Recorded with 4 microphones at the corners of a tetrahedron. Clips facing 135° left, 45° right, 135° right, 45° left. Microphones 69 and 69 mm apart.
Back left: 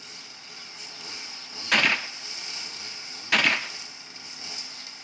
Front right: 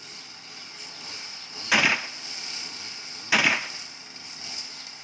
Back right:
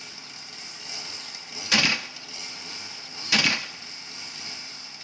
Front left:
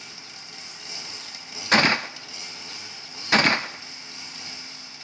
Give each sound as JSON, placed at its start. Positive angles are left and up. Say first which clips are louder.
{"t": 1.7, "sound": "a gunshot", "louder": "front right 1 dB, front left 6 dB", "azimuth_deg": 30, "distance_m": 0.5}